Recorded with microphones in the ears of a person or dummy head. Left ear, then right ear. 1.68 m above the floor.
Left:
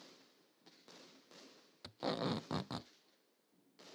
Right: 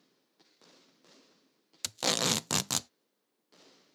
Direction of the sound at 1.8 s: 75° right (ahead or behind).